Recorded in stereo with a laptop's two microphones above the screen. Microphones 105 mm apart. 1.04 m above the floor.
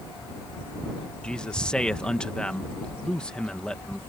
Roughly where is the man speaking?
Centre.